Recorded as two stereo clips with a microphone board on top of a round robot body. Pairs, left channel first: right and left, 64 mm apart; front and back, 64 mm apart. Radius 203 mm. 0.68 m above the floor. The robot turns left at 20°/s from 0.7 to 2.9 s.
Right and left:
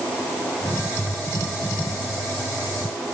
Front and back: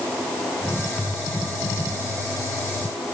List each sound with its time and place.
Only background noise.